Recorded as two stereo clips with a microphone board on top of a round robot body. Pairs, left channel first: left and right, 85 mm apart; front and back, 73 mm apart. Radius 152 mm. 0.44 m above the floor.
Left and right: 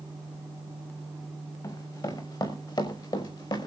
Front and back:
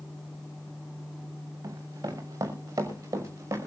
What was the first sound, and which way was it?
Running footsteps, 135° left.